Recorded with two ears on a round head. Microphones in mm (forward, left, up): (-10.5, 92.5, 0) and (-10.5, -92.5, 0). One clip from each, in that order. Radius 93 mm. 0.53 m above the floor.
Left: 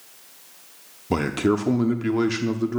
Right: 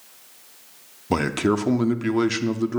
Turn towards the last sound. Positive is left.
turn(degrees=-15)  # may be behind; listen again after turning